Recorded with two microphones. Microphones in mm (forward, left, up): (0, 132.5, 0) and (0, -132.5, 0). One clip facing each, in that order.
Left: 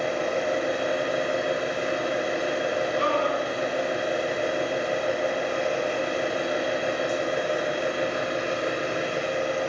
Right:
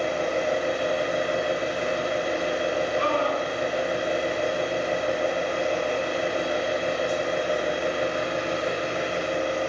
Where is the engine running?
5° left (ahead or behind), 1.2 m.